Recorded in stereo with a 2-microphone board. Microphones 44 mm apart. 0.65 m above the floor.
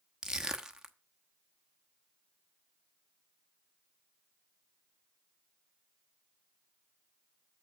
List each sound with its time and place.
0.2 s crushing: 15° right (ahead or behind), 0.9 m